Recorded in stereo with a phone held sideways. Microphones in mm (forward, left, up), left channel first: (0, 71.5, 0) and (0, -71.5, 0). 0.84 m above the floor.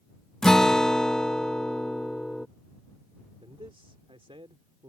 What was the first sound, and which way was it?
A guitar, 5° left (ahead or behind).